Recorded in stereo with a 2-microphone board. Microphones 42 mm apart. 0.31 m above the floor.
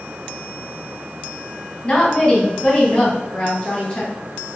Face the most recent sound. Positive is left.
turn(degrees=20)  # may be behind; listen again after turning